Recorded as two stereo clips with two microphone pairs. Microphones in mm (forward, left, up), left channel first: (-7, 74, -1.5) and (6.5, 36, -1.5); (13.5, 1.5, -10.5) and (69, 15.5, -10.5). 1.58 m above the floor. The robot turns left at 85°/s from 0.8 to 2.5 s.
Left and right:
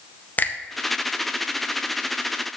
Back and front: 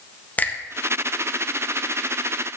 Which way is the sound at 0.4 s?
135° left.